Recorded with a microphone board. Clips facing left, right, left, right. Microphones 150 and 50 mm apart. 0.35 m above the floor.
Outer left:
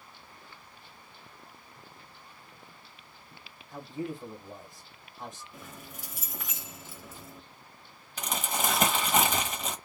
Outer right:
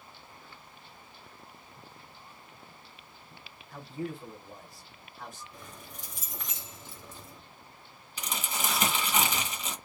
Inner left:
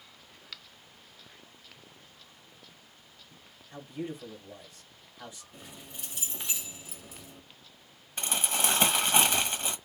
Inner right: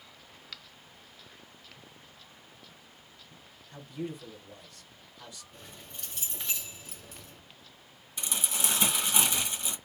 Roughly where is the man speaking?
Left.